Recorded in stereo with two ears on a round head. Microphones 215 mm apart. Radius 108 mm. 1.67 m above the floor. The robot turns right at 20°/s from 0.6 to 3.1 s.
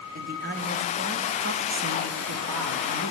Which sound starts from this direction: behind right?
A man speaking, at 0.1 s.